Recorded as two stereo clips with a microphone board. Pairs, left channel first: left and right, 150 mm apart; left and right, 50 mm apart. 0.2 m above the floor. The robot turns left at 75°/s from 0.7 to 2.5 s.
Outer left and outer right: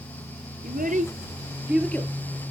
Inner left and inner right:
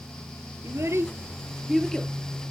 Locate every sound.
0.6 s a child speaking: 70° right (ahead or behind), 2.5 m; by 2.1 s 25° left (ahead or behind), 2.5 m